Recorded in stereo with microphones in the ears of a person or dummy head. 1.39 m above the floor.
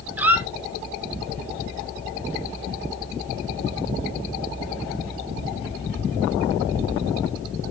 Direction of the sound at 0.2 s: 15° right (ahead or behind).